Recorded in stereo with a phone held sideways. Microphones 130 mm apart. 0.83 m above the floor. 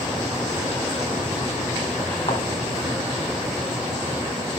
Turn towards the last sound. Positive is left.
turn(degrees=45)  # may be behind; listen again after turning